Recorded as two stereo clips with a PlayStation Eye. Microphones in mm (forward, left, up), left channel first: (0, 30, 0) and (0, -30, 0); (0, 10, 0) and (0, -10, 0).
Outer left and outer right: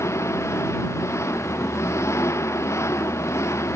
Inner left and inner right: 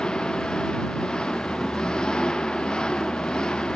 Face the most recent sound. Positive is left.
turn(degrees=55)  # may be behind; listen again after turning